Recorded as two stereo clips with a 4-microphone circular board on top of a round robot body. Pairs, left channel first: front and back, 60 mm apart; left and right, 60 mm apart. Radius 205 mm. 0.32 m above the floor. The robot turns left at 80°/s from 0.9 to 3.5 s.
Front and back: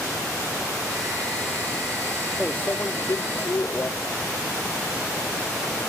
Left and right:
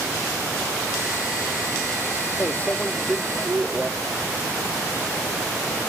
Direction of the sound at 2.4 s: 65° left.